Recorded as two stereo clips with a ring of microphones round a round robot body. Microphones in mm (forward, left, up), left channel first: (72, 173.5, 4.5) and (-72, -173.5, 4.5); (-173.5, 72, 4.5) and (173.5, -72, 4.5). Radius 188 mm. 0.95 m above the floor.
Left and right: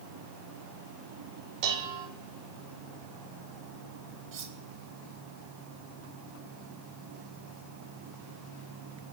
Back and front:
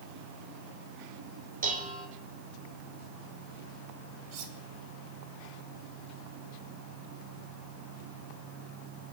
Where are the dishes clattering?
90° right, 3 m.